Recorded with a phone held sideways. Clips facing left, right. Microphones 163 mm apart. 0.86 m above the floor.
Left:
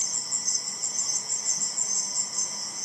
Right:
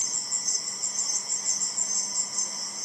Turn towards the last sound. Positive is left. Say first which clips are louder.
# even
turn(degrees=70)  # may be behind; listen again after turning